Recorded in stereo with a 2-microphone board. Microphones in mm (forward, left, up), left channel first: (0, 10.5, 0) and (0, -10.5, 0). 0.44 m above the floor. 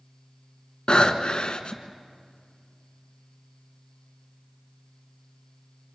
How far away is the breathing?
About 1.4 m.